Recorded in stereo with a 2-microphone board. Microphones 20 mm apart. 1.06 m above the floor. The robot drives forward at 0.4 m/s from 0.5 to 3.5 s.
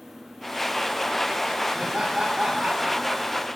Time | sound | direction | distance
1.8 | laughter | 70° right (ahead or behind) | 4 m